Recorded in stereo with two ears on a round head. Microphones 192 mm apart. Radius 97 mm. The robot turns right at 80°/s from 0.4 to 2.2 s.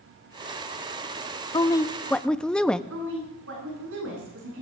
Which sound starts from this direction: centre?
A woman speaking, at 1.5 s.